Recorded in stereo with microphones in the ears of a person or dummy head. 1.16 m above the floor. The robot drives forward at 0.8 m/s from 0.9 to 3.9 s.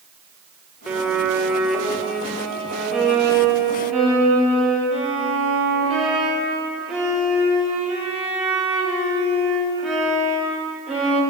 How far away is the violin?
About 1.0 m.